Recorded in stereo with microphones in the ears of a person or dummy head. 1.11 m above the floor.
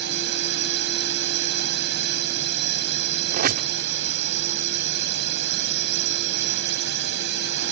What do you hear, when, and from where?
0.0 s a drone: 70° right (ahead or behind)
3.3 s a squeak: 45° right (ahead or behind)